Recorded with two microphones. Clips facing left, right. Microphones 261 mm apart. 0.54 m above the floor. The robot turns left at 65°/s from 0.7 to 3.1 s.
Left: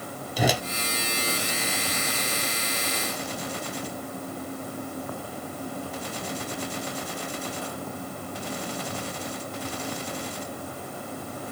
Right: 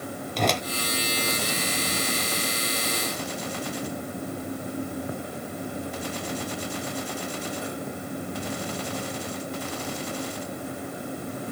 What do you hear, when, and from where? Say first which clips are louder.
0.4 s a whoosh: left 1 dB; 5° left (ahead or behind), 0.5 m